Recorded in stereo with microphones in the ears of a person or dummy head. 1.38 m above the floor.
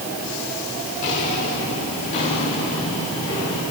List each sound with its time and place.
1.0 s footsteps: 40° left (ahead or behind), 7 m; by 3.6 s 25° left (ahead or behind), 7.5 m